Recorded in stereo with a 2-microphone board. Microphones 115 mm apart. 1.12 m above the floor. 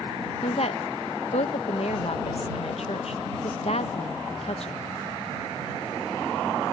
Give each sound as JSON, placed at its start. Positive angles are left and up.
{"t": 0.4, "sound": "a woman speaking", "side_deg": 65}